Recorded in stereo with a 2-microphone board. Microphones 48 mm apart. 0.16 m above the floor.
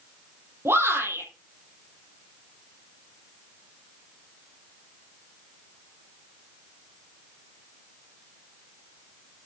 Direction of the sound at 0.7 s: 60° right (ahead or behind).